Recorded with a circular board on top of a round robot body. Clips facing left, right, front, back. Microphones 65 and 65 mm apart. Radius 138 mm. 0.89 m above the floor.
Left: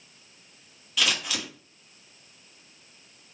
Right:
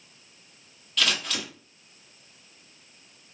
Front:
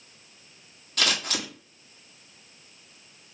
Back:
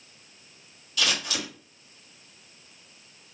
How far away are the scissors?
About 1.1 m.